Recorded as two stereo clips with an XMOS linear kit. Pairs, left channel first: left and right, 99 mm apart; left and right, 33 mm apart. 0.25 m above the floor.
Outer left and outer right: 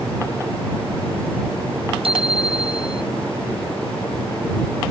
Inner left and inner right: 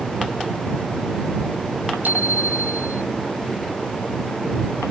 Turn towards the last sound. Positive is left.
turn(degrees=-70)  # may be behind; listen again after turning